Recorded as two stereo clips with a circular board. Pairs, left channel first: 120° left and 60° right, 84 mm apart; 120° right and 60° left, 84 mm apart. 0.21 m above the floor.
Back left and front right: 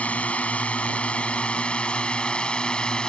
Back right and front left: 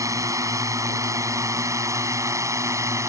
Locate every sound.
0.0 s a drone: 55° left; by 3.1 s 45° left